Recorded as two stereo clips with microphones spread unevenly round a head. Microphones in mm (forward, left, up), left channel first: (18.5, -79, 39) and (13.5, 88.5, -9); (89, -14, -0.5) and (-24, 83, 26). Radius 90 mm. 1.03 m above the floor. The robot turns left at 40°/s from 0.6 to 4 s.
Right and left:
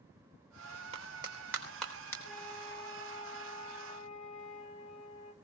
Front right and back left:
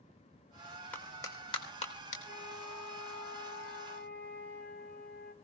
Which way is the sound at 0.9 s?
40° left.